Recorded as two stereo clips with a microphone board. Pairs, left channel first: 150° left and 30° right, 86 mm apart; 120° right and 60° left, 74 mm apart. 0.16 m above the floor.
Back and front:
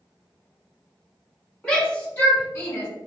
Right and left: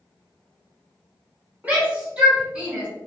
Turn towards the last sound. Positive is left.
turn(degrees=130)